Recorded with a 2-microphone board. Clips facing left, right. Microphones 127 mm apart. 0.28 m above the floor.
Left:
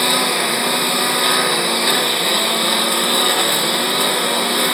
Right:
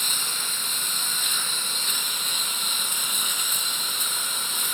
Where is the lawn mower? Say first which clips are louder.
Left 19 dB; 75° left (ahead or behind).